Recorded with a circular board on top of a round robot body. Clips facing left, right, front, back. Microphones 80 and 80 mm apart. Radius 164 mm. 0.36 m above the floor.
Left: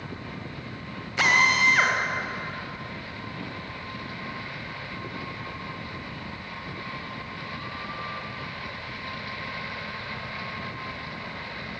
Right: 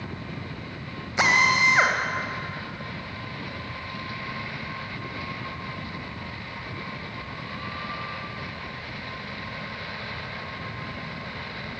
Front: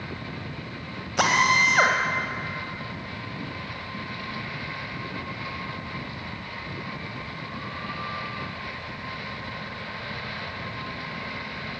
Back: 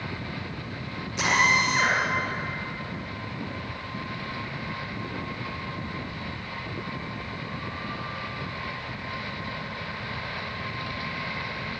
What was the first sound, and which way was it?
A drill, 20° right.